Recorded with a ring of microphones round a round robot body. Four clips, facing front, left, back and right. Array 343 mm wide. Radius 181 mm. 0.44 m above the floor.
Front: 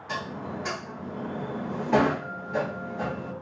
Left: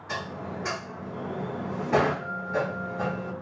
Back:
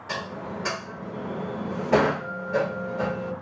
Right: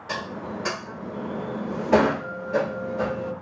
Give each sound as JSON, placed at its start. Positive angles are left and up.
{"t": 0.1, "sound": "dishes clattering", "azimuth_deg": -120, "distance_m": 1.3}